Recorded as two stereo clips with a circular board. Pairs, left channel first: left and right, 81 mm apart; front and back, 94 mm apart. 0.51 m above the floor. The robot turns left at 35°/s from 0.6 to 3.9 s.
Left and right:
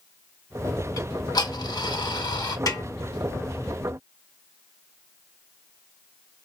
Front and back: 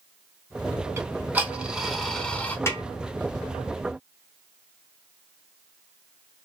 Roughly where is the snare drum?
Ahead left.